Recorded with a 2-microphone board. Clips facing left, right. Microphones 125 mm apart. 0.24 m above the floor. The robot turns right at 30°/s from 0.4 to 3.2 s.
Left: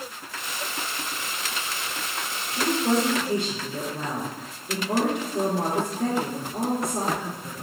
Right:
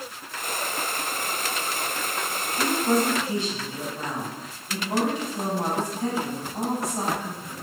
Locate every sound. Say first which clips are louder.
2.6 s a woman speaking: even; 60° left (ahead or behind), 3.5 m; by 7.5 s 70° left (ahead or behind), 3.5 m